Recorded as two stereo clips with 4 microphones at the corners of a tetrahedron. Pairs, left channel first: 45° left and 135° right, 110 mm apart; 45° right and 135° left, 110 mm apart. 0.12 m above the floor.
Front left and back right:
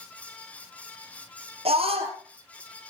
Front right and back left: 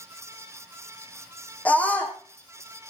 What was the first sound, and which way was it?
A scream, 120° right.